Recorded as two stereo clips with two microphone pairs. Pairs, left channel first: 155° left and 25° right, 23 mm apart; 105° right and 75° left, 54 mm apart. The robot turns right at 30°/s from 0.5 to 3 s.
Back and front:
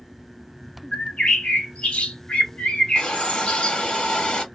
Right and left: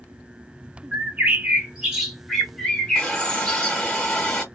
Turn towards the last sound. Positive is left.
turn(degrees=180)